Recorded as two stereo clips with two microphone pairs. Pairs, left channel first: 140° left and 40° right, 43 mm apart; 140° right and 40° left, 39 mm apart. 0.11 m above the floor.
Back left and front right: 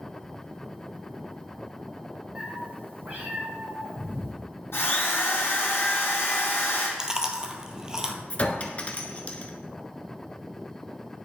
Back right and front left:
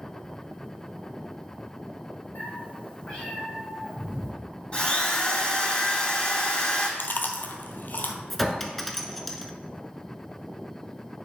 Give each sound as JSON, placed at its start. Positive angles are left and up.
{"t": 2.4, "sound": "a cat meowing", "azimuth_deg": -105, "distance_m": 1.7}
{"t": 4.7, "sound": "a drill", "azimuth_deg": 160, "distance_m": 2.5}
{"t": 7.0, "sound": "chewing", "azimuth_deg": -110, "distance_m": 0.8}
{"t": 8.3, "sound": "a clink", "azimuth_deg": 135, "distance_m": 0.7}